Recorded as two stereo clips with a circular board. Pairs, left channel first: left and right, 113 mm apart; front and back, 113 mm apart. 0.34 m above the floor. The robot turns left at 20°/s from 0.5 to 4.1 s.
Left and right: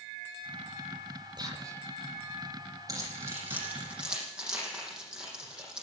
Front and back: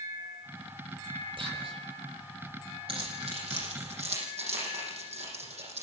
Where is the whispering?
140° right, 8.5 m; by 1.8 s 150° right, 8.5 m.